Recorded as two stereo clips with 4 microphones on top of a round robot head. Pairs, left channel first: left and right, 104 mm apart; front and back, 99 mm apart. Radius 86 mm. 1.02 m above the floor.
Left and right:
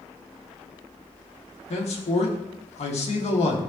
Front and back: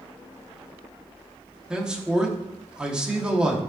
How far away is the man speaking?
About 2 m.